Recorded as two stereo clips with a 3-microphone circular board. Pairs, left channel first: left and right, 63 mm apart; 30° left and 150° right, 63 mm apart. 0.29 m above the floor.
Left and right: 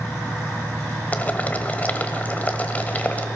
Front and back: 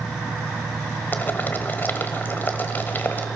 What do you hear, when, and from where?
1.1 s boiling: 50° left, 1.2 m